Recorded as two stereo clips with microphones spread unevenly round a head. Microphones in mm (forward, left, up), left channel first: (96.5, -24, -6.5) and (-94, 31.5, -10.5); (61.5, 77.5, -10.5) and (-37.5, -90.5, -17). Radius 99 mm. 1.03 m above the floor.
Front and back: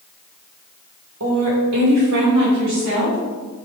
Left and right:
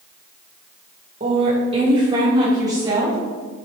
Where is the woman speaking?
Straight behind, 3.5 m; by 3.2 s 165° left, 6 m.